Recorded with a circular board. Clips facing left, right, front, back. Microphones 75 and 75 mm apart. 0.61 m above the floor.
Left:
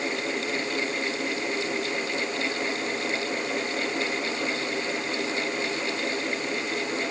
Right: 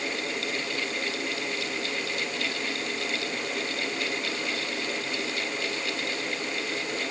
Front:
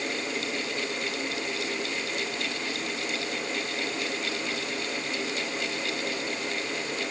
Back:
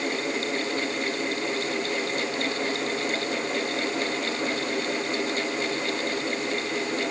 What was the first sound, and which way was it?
Only background noise.